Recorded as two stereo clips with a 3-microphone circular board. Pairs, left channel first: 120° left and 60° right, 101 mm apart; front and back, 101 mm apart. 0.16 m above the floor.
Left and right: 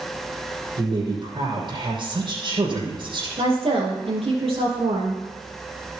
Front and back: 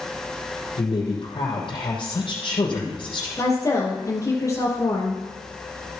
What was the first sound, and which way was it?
A woman speaking, 30° right.